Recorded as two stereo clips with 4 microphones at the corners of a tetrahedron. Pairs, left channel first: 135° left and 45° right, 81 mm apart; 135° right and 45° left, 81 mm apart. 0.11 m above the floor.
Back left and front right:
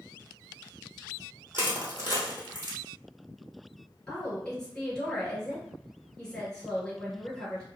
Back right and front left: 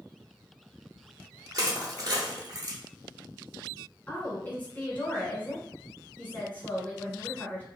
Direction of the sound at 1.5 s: 20° left.